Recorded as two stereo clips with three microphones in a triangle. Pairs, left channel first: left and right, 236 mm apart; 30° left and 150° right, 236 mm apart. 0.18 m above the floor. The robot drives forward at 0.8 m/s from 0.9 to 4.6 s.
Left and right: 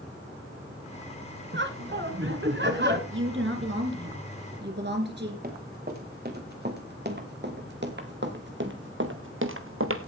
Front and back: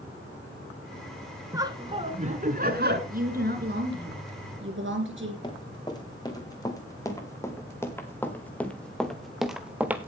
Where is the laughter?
75° right, 1.9 m; by 3.0 s 120° right, 2 m.